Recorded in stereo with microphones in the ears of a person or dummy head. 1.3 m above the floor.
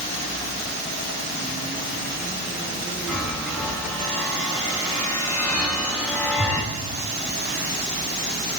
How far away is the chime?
About 3.5 m.